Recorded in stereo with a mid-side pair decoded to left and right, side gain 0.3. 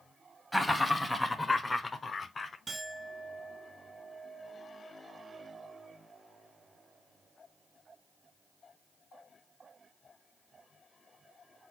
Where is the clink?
40° right, 1.6 m.